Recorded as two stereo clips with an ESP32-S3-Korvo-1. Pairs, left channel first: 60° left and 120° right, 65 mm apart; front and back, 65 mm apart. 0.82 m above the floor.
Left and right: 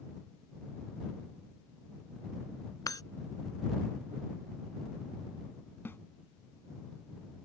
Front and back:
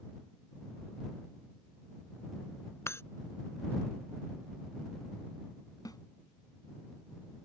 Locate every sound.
2.9 s breaking glass: 45° left
5.8 s a snare drum: 5° left